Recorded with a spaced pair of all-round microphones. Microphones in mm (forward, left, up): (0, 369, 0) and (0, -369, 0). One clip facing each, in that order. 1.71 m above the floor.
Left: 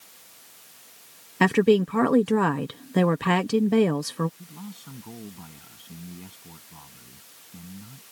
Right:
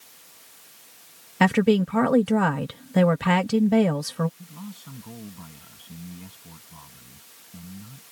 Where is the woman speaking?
20° right (ahead or behind).